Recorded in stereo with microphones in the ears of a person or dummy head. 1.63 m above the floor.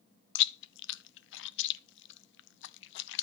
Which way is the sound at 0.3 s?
70° left (ahead or behind).